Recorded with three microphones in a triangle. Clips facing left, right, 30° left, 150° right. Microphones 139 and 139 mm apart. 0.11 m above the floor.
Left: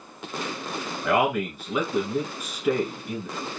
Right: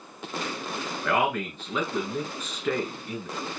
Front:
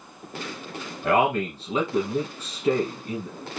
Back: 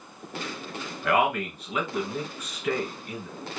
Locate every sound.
1.0 s a man speaking: 20° left, 1.3 m